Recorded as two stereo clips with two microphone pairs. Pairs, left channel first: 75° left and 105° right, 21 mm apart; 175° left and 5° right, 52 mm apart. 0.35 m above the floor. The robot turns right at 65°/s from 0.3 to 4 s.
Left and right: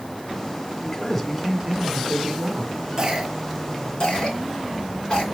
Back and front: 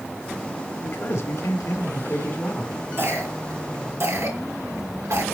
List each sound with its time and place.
0.8 s a man speaking: 135° left, 3 m; by 2.7 s 100° right, 3 m
3.0 s a cough: 45° right, 5 m; by 5.2 s 20° left, 5 m